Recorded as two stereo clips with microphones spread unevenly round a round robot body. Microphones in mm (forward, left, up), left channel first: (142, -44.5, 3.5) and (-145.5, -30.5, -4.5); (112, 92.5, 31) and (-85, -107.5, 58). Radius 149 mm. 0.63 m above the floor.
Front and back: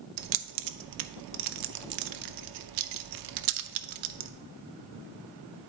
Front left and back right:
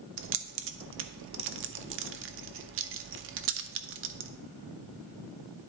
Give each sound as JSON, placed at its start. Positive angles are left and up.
{"t": 0.2, "sound": "keys jangling", "azimuth_deg": 175, "distance_m": 0.5}